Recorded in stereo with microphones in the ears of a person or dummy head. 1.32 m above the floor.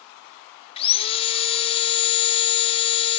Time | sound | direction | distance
0.8 | sawing | 30° left (ahead or behind) | 0.8 m